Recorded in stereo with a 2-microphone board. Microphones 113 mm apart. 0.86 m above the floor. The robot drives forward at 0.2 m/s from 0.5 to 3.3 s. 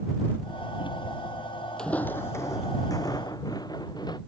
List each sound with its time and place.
1.8 s footsteps: 5° left (ahead or behind); by 4.2 s 40° left (ahead or behind)